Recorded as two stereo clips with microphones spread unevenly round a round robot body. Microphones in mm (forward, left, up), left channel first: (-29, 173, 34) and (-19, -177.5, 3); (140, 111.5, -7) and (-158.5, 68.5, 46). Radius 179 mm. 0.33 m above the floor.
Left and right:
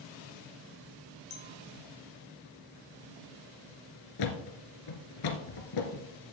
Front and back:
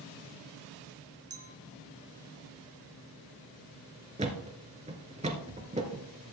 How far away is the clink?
About 2.0 m.